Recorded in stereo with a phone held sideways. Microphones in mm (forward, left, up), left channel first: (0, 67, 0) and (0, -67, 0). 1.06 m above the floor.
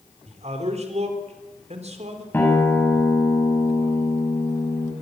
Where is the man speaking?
55° right (ahead or behind), 3.5 m.